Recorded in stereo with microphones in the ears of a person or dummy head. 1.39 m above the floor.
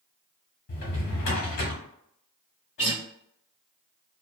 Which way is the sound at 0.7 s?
45° left (ahead or behind).